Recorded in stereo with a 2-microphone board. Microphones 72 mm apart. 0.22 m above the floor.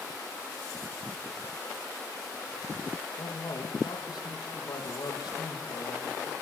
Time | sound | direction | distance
3.2 | a man speaking | 75° left (ahead or behind) | 6.5 m